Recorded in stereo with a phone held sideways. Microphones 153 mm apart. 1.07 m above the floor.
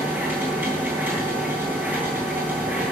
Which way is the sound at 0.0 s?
10° right (ahead or behind).